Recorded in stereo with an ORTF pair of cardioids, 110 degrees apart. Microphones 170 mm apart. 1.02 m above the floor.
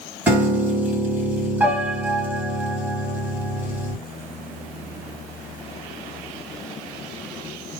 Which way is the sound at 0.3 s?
10° right.